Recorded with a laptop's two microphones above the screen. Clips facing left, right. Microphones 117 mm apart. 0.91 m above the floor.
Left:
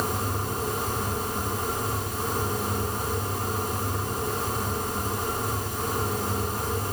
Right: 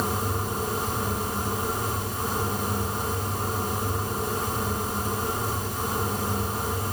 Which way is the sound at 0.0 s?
5° right (ahead or behind).